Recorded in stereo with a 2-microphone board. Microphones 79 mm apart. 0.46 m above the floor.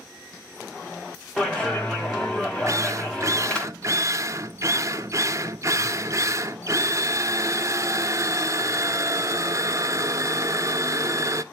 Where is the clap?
10° left (ahead or behind), 2.5 m.